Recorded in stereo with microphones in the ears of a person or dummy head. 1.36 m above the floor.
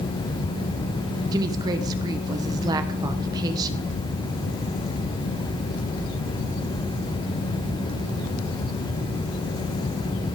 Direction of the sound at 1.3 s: 25° right (ahead or behind).